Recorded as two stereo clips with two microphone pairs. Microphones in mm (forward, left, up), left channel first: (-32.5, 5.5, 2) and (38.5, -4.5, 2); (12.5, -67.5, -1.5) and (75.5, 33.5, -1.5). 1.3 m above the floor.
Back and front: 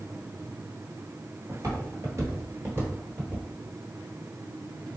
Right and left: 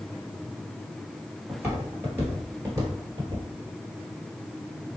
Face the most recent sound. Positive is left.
turn(degrees=45)